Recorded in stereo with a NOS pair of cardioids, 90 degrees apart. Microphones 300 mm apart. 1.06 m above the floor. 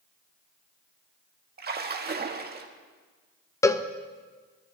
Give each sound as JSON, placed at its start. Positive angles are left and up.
{"t": 1.6, "sound": "a splash", "azimuth_deg": -30, "distance_m": 1.6}
{"t": 3.6, "sound": "a cowbell", "azimuth_deg": 10, "distance_m": 0.7}